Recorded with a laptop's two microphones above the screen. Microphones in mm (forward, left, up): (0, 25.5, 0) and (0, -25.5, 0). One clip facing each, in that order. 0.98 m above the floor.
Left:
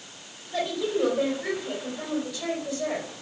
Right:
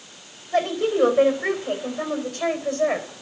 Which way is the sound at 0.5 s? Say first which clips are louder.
Right 6 dB; 45° right (ahead or behind).